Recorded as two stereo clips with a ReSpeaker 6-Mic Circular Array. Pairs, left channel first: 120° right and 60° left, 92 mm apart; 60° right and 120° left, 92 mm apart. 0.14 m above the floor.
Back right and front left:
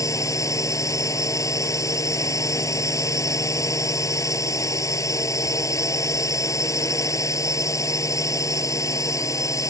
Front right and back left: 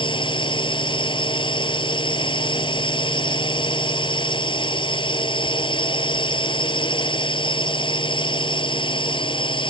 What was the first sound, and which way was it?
A drone, 70° right.